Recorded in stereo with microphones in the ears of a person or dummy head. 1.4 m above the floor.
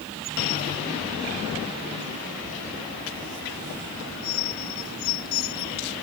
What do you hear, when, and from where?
Only background noise.